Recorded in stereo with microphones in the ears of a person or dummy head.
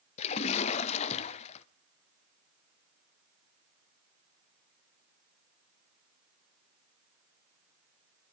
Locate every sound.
0.2 s a splash: 40° left (ahead or behind), 0.8 m